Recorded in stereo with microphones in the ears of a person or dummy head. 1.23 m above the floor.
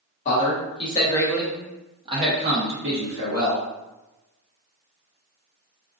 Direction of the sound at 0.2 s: 40° left (ahead or behind).